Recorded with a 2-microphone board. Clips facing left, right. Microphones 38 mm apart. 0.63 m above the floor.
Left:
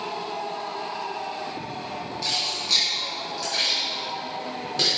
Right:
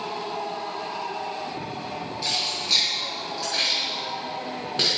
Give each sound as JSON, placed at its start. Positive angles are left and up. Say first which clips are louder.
{"t": 2.2, "sound": "keys jangling", "louder": "even", "side_deg": -15, "distance_m": 4.0}